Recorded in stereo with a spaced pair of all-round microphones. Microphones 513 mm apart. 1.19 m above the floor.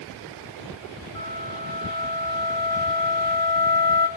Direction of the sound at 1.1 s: 10° left (ahead or behind).